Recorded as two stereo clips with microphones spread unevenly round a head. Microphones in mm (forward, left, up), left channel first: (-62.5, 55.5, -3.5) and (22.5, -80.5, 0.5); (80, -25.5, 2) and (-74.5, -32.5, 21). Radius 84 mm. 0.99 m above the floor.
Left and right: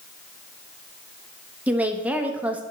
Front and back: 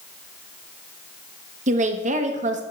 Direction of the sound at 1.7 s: 140° right.